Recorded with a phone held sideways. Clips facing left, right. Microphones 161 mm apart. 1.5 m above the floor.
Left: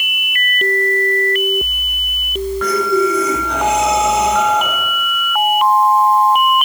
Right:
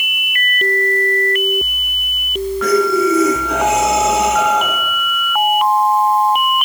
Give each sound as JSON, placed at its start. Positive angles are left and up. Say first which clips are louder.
{"t": 2.6, "sound": "breathing", "louder": "right 2 dB", "side_deg": -5, "distance_m": 8.0}